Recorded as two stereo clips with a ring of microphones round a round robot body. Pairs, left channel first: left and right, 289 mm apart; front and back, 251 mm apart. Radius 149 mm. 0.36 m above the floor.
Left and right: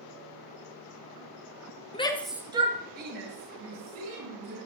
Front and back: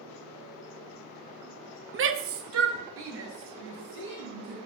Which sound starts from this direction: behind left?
A shout, at 1.9 s.